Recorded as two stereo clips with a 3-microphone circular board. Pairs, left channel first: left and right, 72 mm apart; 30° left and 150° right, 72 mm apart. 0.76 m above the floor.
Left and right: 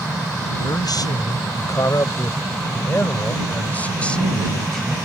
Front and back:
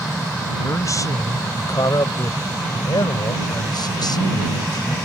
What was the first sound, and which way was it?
A man speaking, 75° left.